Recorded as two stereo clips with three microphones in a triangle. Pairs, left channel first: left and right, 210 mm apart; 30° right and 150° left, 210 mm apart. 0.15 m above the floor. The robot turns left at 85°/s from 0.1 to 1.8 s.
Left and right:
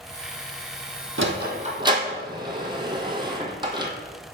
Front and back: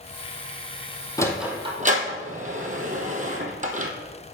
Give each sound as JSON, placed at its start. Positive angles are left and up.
{"t": 1.2, "sound": "a sliding door", "azimuth_deg": -105, "distance_m": 1.1}